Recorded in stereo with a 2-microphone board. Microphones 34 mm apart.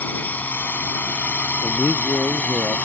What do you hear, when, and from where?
0.0 s a drone: 55° left (ahead or behind); by 2.9 s 50° left (ahead or behind)
1.6 s a man speaking: 85° left